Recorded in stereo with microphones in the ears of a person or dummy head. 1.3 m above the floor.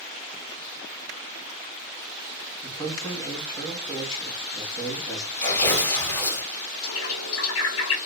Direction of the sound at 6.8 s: 80° left.